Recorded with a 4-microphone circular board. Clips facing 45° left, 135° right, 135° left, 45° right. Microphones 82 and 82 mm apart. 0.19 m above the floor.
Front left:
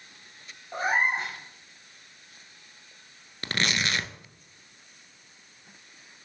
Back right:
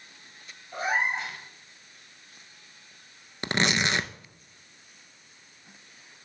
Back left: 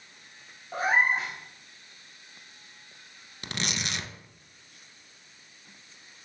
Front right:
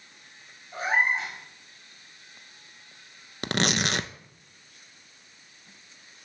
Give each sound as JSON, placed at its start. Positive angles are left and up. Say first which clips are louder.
{"t": 0.7, "sound": "a cat meowing", "louder": "front left 2 dB, back left 1 dB", "azimuth_deg": 95, "distance_m": 3.0}
{"t": 3.4, "sound": "tearing paper", "louder": "back right 3 dB, front right 8 dB", "azimuth_deg": -70, "distance_m": 0.5}